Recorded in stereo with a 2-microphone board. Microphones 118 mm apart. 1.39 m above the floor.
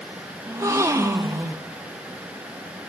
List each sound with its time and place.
0.5 s a gasp: 25° right (ahead or behind), 0.6 m